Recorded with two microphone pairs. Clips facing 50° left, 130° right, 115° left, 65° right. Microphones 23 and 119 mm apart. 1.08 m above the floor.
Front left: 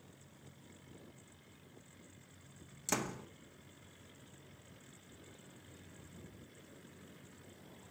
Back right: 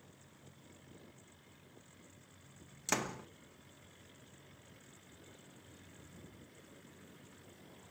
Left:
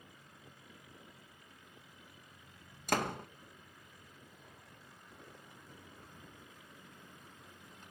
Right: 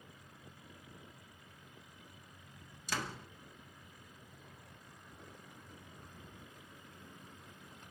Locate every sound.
2.9 s a door slam: 155° left, 0.7 m